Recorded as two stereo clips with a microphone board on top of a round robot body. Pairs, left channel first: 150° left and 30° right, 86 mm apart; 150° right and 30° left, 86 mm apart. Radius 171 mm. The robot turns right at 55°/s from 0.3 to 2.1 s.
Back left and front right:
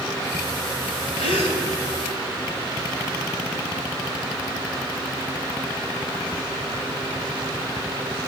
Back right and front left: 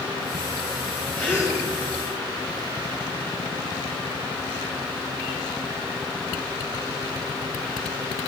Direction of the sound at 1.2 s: 135° left.